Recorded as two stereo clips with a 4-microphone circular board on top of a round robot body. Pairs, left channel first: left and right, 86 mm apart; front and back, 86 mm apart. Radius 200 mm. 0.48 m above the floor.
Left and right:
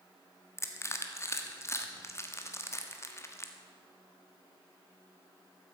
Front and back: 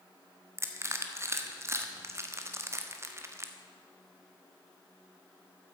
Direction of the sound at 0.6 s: 135° left.